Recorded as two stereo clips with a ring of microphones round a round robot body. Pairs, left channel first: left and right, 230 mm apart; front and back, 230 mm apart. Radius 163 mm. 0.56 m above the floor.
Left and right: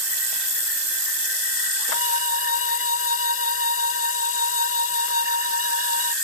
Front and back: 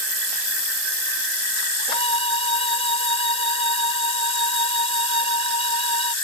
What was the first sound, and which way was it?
A violin, 65° left.